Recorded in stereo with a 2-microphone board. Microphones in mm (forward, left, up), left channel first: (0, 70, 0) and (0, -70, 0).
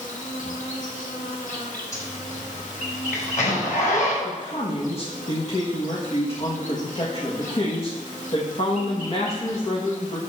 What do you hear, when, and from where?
0.0 s an insect: 70° left (ahead or behind), 1.5 m
1.9 s a zipper: 70° left (ahead or behind), 5 m
4.2 s a man speaking: 45° left (ahead or behind), 1.7 m